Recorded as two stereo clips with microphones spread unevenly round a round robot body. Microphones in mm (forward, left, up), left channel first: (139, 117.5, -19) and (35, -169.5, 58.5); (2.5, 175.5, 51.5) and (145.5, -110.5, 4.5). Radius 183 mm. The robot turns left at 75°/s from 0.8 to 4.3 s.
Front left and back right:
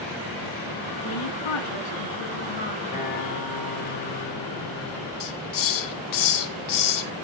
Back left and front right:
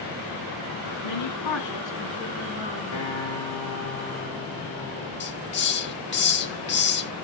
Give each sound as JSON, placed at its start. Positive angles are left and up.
{"t": 1.0, "sound": "a woman speaking", "azimuth_deg": 130, "distance_m": 9.5}
{"t": 2.9, "sound": "a guitar", "azimuth_deg": 135, "distance_m": 4.5}
{"t": 5.2, "sound": "a hiss", "azimuth_deg": 55, "distance_m": 3.0}